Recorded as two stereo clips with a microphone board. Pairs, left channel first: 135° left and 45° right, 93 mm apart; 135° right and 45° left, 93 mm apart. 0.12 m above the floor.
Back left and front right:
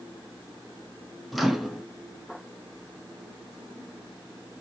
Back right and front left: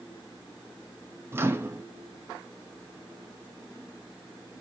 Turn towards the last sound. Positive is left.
turn(degrees=40)